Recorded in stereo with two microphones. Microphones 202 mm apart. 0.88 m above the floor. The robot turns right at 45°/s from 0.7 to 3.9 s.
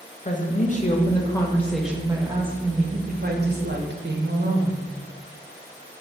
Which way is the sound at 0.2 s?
130° left.